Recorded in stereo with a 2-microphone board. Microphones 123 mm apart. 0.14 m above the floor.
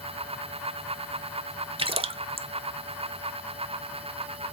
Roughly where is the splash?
Right.